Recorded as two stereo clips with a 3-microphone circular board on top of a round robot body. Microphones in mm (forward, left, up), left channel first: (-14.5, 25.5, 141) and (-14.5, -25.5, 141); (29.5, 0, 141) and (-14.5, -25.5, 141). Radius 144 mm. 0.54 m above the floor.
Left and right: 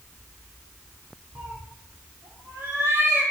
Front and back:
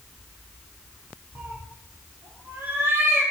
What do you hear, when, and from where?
1.4 s a cat meowing: 95° right, 5.5 m; by 3.2 s 110° right, 5.5 m